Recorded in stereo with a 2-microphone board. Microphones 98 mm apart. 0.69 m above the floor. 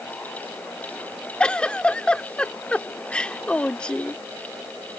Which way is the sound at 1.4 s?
10° left (ahead or behind).